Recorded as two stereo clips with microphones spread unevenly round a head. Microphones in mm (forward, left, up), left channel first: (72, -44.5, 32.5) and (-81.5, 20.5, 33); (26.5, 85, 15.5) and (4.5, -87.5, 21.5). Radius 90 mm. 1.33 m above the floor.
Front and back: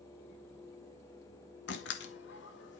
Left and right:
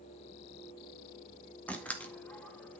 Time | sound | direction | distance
1.7 | a door slam | straight ahead | 2 m